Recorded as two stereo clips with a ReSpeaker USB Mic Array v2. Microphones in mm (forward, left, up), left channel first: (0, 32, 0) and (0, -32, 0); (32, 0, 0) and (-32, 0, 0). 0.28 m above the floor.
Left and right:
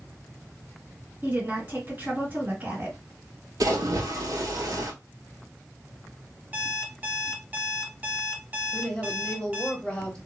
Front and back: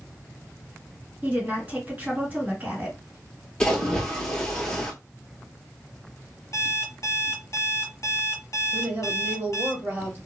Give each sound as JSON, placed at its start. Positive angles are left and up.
{"t": 1.2, "sound": "a woman speaking", "azimuth_deg": -130, "distance_m": 1.8}
{"t": 3.6, "sound": "a splash", "azimuth_deg": -75, "distance_m": 0.8}
{"t": 6.5, "sound": "an alarm clock", "azimuth_deg": -30, "distance_m": 0.8}
{"t": 8.7, "sound": "a woman speaking", "azimuth_deg": 150, "distance_m": 1.3}